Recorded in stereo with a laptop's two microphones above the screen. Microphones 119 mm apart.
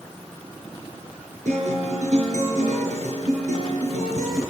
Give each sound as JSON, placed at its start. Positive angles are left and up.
{"t": 1.4, "sound": "a guitar", "side_deg": -80, "distance_m": 6.5}